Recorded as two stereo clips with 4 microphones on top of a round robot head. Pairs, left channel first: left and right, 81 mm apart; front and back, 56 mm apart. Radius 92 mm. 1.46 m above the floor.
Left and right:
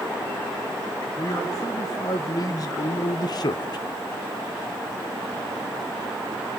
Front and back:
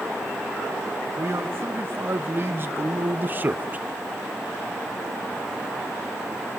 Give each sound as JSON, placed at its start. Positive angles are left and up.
{"t": 1.2, "sound": "a man speaking", "azimuth_deg": 140, "distance_m": 2.0}